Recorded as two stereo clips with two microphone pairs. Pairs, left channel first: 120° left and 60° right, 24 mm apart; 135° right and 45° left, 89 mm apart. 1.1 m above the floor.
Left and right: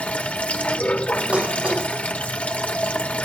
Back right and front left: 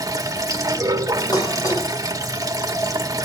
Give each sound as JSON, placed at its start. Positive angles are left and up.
{"t": 0.0, "sound": "running water", "azimuth_deg": 95, "distance_m": 1.4}
{"t": 1.3, "sound": "dishes clattering", "azimuth_deg": -95, "distance_m": 3.5}